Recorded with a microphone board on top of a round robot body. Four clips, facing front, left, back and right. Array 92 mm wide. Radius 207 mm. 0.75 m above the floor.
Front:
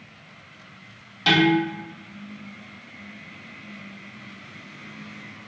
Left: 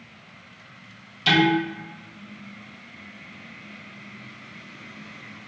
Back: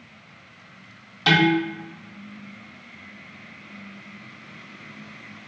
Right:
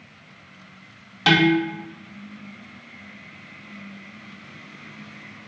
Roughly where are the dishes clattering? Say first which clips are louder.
Right 2 dB, even; right.